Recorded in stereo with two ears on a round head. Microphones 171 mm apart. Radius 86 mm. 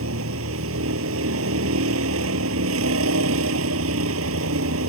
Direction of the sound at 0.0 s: 85° right.